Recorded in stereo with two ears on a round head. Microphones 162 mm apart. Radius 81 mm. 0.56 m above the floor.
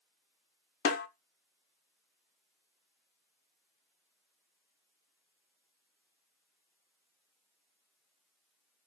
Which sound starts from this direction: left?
A snare drum, at 0.8 s.